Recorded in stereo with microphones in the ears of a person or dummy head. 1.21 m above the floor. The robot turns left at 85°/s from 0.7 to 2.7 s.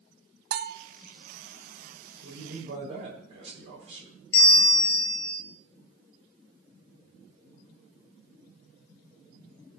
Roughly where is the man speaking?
Right.